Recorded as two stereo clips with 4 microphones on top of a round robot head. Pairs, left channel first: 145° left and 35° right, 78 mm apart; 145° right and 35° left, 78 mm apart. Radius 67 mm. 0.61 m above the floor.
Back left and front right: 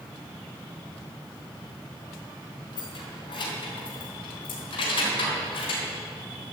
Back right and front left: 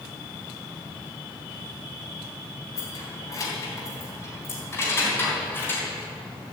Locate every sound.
2.8 s keys jangling: 175° left, 3 m; by 5.8 s 150° left, 4.5 m